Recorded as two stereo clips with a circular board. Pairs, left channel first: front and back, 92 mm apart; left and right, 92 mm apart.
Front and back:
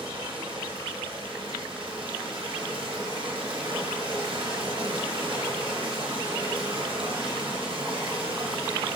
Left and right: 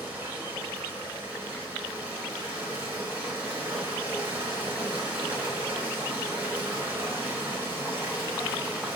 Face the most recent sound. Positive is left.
turn(degrees=-155)